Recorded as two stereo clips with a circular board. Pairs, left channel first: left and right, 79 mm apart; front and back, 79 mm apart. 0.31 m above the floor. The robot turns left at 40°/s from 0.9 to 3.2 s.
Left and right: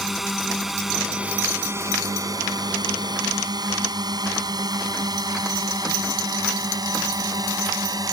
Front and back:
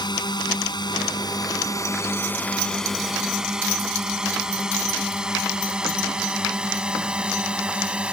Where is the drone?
5° right; by 8.1 s 105° right.